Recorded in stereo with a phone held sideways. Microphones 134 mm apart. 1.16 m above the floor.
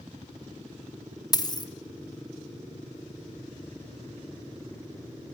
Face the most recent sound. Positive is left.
turn(degrees=30)  # may be behind; listen again after turning